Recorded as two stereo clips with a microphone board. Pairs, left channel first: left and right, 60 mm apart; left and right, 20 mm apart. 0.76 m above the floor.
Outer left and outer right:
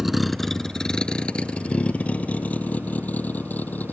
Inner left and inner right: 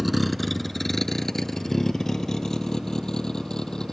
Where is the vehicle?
Centre (ahead or behind); by 3.9 s 30° left (ahead or behind).